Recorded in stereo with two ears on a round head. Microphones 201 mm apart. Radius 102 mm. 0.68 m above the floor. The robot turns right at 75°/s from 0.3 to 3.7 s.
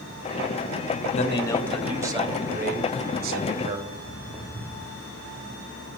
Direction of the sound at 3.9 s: 15° left (ahead or behind).